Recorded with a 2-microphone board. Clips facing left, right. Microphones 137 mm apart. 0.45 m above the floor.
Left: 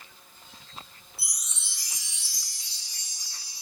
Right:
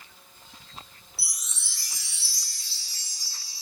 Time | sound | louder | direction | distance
1.2 | a chime | right 1 dB | 20° left (ahead or behind) | 3 m